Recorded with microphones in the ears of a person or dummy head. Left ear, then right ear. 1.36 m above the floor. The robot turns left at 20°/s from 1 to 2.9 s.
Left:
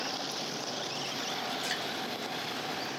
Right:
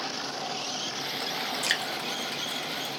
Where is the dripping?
50° right (ahead or behind), 0.9 m; by 1.9 s 45° right (ahead or behind), 0.9 m.